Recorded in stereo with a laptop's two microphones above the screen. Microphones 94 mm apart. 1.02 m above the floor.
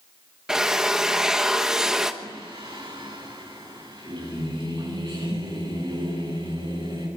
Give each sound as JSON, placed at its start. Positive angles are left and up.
{"t": 0.5, "sound": "a drill", "side_deg": -5, "distance_m": 1.2}
{"t": 2.2, "sound": "singing", "side_deg": -60, "distance_m": 9.5}